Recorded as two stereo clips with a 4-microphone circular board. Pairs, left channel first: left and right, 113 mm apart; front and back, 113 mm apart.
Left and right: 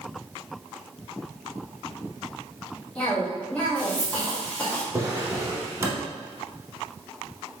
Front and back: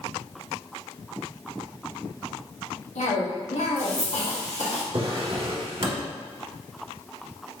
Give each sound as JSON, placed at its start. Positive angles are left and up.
{"t": 3.0, "sound": "a cough", "azimuth_deg": 10, "distance_m": 1.8}
{"t": 4.9, "sound": "a drawer", "azimuth_deg": -145, "distance_m": 0.9}